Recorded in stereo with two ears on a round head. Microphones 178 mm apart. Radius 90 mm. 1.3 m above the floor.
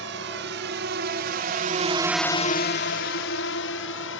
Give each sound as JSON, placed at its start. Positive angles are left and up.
{"t": 0.0, "sound": "a drone", "side_deg": -60}